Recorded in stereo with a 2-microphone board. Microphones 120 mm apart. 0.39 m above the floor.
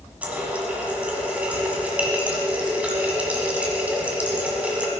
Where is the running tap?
10° right (ahead or behind), 1.6 m.